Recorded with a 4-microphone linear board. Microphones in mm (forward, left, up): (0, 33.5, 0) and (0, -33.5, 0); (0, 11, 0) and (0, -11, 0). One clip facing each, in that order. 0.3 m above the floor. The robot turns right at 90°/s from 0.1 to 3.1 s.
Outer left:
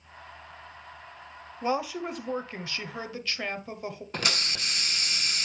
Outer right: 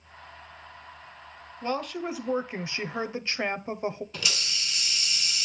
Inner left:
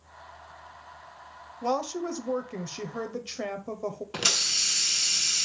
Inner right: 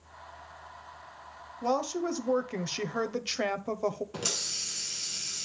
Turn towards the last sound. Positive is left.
turn(degrees=45)  # may be behind; listen again after turning